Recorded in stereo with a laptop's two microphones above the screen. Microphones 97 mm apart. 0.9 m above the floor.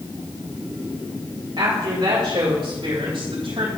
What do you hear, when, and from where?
1.6 s a woman speaking: 60° right (ahead or behind), 1.7 m; by 3.7 s 75° right (ahead or behind), 3.5 m